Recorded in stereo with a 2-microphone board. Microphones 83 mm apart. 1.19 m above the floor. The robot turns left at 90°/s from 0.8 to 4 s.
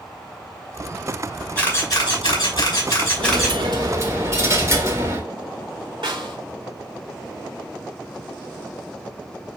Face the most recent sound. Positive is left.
turn(degrees=-75)  # may be behind; listen again after turning